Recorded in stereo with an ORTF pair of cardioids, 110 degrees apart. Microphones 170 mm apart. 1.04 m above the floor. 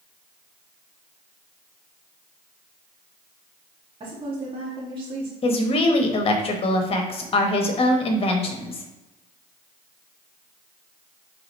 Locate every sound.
4.0 s a woman speaking: 30° right, 1.9 m
5.4 s a woman speaking: 35° left, 1.1 m